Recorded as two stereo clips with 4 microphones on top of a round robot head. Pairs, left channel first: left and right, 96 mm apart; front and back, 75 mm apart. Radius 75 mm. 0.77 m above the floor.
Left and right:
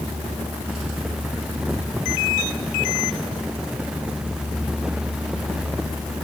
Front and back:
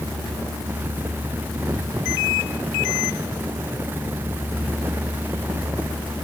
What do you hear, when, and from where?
Only background noise.